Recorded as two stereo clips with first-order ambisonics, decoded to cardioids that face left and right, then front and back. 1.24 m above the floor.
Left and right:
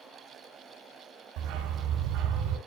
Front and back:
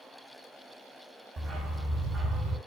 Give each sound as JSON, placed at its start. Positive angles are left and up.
{"t": 1.4, "sound": "a dog barking", "azimuth_deg": -110, "distance_m": 3.0}